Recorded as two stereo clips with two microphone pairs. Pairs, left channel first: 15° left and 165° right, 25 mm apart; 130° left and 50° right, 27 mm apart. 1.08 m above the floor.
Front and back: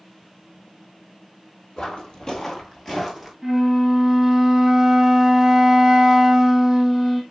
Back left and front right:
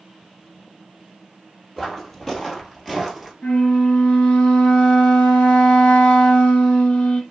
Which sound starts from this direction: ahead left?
Footsteps, at 1.8 s.